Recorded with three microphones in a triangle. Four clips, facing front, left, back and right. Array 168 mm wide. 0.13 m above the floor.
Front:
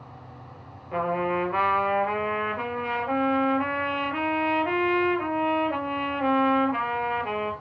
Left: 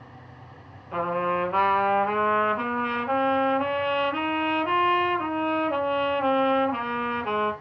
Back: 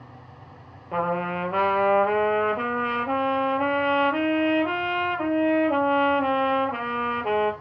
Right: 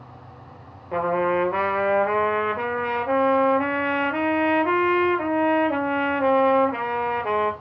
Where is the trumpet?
130° right, 3 m.